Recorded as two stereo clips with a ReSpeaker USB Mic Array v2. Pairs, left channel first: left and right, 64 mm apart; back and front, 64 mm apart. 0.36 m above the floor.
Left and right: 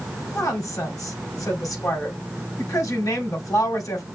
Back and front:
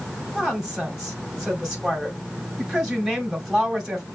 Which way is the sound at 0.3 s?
75° left.